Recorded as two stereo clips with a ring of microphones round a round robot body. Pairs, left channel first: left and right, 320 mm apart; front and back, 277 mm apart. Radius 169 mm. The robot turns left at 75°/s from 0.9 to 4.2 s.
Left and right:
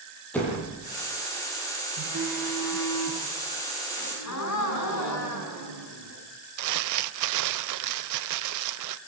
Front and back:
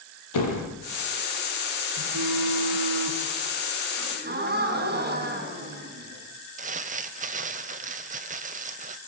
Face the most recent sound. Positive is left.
turn(degrees=-115)